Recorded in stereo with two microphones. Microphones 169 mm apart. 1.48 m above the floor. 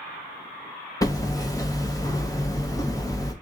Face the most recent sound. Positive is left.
turn(degrees=20)  # may be behind; listen again after turning